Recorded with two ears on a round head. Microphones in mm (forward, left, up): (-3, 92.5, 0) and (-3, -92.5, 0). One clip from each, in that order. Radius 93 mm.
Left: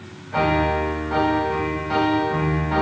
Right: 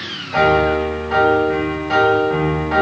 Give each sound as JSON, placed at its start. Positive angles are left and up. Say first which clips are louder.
{"t": 0.3, "sound": "a piano", "louder": "right 6 dB", "side_deg": -35, "distance_m": 1.5}